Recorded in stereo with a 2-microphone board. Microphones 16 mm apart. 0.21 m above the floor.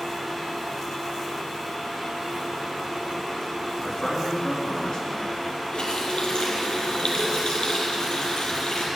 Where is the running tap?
70° left (ahead or behind), 4 m.